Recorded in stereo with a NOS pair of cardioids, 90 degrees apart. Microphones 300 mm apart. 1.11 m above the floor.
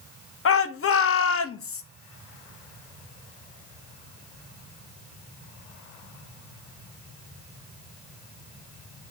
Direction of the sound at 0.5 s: 45° left.